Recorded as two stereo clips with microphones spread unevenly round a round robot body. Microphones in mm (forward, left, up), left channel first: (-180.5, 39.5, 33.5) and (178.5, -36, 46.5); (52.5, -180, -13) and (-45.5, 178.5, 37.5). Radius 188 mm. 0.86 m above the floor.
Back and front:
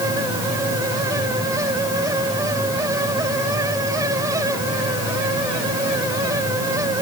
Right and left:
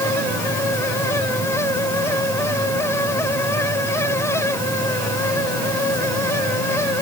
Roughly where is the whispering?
I don't hear whispering.